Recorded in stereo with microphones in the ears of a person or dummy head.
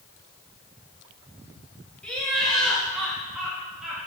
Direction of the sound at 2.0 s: 5° left (ahead or behind).